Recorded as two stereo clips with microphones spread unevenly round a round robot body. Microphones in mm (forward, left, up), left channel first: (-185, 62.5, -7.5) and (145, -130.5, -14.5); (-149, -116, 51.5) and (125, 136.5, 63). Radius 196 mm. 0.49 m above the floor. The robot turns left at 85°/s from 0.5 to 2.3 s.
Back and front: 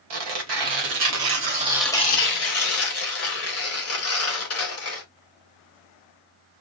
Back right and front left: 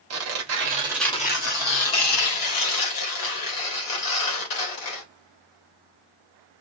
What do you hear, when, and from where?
0.1 s tearing paper: 5° right, 2.5 m; by 5.0 s 160° right, 2.5 m